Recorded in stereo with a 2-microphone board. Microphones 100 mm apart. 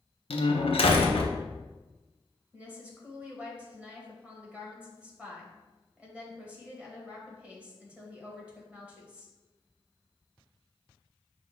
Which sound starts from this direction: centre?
A woman speaking, at 2.5 s.